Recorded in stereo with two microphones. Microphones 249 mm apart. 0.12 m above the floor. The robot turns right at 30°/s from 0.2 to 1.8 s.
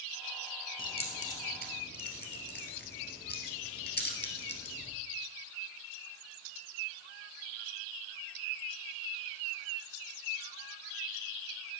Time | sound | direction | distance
0.8 | keys jangling | 20° left (ahead or behind) | 1.8 m